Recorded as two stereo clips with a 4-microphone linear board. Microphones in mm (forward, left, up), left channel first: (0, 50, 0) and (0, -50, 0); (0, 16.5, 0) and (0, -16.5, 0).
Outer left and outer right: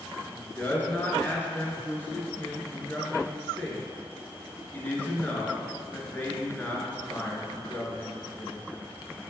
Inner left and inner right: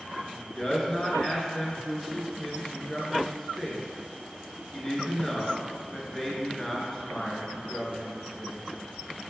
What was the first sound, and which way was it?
A man speaking, 20° left (ahead or behind).